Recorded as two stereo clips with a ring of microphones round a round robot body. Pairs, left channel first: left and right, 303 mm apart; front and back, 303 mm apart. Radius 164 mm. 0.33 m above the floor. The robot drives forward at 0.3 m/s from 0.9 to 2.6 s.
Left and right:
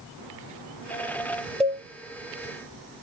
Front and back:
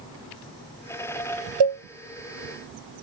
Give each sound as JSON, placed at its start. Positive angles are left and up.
{"t": 1.6, "sound": "a cowbell", "azimuth_deg": 180, "distance_m": 1.3}